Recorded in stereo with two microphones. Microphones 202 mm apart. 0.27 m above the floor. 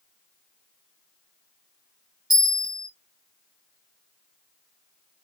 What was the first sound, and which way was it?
A bell, 20° right (ahead or behind).